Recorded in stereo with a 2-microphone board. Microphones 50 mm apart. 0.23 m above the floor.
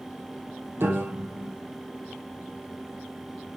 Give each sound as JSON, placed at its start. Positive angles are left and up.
{"t": 0.8, "sound": "a piano", "side_deg": -55, "distance_m": 4.0}